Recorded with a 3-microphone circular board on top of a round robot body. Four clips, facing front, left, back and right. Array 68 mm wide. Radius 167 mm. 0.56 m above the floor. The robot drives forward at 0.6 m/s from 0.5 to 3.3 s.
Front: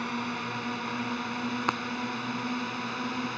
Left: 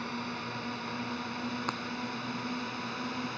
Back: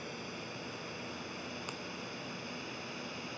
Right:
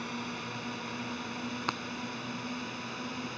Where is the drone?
15° left; by 3.4 s 20° left.